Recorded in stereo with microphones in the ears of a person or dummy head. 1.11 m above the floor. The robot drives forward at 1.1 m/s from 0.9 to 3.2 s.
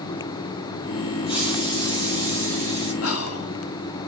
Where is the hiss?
30° left (ahead or behind), 4 m; by 2.9 s 20° left (ahead or behind), 6 m.